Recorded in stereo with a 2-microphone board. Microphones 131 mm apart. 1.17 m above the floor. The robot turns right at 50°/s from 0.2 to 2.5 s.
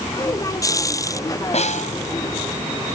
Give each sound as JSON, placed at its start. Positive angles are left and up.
{"t": 1.5, "sound": "a snare drum", "side_deg": 55}